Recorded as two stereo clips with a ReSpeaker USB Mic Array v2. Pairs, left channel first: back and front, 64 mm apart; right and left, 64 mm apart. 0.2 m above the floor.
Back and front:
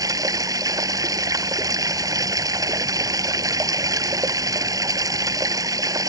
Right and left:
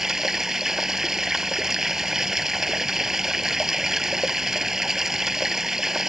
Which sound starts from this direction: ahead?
Running water, at 0.0 s.